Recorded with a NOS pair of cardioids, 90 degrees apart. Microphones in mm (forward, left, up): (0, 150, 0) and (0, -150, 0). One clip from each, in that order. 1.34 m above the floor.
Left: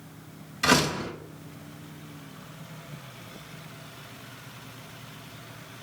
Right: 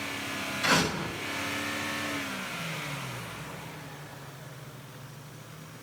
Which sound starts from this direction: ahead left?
A door slam, at 0.6 s.